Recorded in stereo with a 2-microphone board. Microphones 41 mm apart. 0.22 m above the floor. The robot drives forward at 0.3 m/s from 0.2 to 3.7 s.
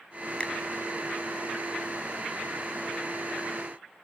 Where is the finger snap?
25° left (ahead or behind), 1.0 m; by 0.5 s 30° left (ahead or behind), 0.9 m.